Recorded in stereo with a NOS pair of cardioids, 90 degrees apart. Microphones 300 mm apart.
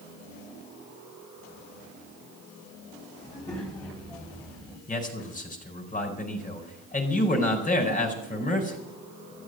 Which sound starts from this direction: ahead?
A child speaking, at 3.2 s.